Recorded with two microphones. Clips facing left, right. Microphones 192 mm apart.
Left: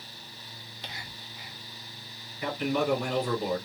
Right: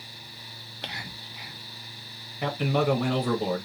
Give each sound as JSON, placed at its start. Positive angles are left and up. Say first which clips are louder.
{"t": 0.8, "sound": "whispering", "louder": "right 5 dB", "side_deg": -70, "distance_m": 0.6}
{"t": 2.4, "sound": "a man speaking", "louder": "right 3 dB", "side_deg": -65, "distance_m": 1.3}